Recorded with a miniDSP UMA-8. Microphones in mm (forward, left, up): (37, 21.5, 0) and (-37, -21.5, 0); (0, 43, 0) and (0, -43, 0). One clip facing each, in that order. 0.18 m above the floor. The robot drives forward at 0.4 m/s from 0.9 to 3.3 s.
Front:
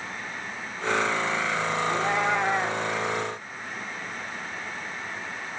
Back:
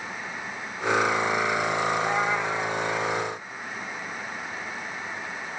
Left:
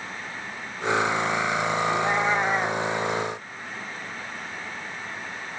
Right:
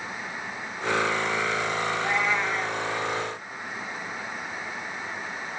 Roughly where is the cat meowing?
Ahead left.